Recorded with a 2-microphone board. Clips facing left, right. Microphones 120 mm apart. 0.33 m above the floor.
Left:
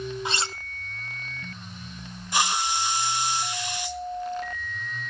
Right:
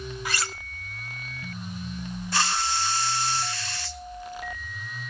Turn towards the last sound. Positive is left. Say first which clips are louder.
# left 2 dB
turn(degrees=20)  # may be behind; listen again after turning